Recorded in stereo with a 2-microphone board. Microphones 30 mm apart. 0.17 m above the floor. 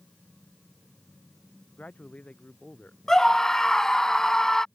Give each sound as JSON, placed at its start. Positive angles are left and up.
{"t": 1.8, "sound": "a man speaking", "side_deg": 50}
{"t": 3.1, "sound": "a scream", "side_deg": 15}